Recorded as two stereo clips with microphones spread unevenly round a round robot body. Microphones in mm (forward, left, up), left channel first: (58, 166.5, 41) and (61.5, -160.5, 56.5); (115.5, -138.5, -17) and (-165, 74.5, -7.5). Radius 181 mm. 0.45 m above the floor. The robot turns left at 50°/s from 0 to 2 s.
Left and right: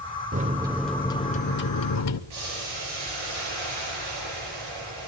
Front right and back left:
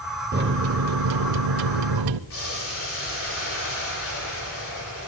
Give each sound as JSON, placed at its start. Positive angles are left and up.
{"t": 0.3, "sound": "a microwave", "azimuth_deg": -155, "distance_m": 1.1}
{"t": 2.3, "sound": "boiling", "azimuth_deg": -90, "distance_m": 10.0}